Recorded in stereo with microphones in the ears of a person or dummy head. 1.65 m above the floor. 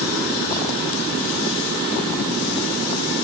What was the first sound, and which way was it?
Only background noise.